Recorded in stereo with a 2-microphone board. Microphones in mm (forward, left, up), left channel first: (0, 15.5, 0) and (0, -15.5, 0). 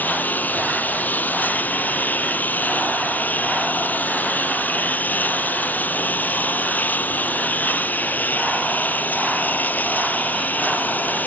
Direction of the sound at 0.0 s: 80° left.